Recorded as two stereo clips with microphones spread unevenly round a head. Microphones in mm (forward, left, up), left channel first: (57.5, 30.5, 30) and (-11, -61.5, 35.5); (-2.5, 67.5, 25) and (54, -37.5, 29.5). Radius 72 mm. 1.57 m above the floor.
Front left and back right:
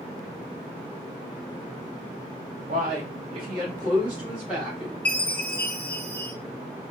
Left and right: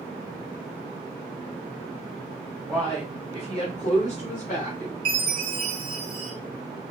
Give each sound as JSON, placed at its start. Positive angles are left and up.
{"t": 2.7, "sound": "a man speaking", "azimuth_deg": -150, "distance_m": 0.6}
{"t": 5.0, "sound": "a chime", "azimuth_deg": -25, "distance_m": 1.6}